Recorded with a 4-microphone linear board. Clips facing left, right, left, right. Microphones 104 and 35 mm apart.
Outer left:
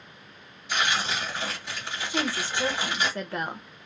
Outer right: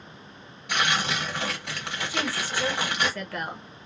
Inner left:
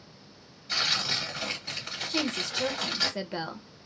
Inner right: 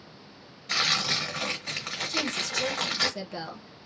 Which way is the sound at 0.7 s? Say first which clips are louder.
Outer right 1 dB, inner right 2 dB; 60° right (ahead or behind).